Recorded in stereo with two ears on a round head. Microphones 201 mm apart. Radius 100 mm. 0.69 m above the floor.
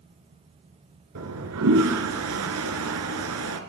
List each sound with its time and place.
1.1 s a toilet flushing: 75° right (ahead or behind), 1.7 m